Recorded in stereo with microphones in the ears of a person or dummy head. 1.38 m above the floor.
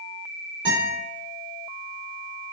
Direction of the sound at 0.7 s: 10° right (ahead or behind).